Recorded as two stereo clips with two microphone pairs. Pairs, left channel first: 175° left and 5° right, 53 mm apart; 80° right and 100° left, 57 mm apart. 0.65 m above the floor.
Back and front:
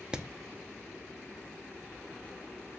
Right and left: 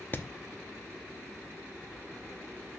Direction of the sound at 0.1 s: 65° right.